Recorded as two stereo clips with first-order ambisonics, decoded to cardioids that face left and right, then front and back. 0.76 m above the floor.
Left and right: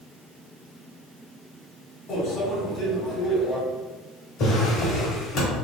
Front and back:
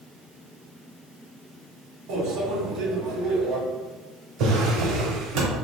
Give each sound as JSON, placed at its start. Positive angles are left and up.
{"t": 2.1, "sound": "a microwave", "azimuth_deg": 145, "distance_m": 1.6}
{"t": 4.4, "sound": "a drawer", "azimuth_deg": 135, "distance_m": 1.5}